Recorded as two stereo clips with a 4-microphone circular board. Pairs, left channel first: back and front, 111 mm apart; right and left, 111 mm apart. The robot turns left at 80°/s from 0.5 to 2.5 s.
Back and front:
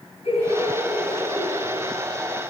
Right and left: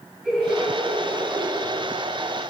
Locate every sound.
0.2 s laughter: 170° left, 2.5 m; by 1.6 s 85° left, 2.5 m